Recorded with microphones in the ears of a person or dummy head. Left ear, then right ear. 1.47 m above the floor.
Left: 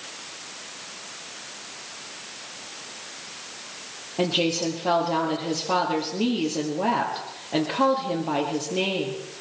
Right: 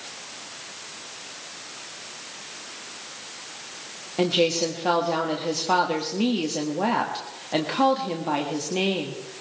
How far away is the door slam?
I don't hear a door slam.